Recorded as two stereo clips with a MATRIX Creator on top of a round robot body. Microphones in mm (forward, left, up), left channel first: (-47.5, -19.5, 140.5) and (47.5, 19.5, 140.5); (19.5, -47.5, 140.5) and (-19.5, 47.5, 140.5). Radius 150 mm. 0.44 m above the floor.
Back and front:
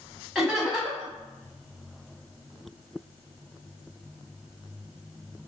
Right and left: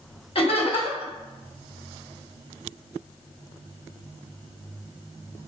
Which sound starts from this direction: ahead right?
Laughter, at 0.3 s.